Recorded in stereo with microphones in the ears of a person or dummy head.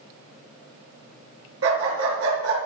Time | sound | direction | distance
1.6 | a dog barking | 70° right (ahead or behind) | 5 m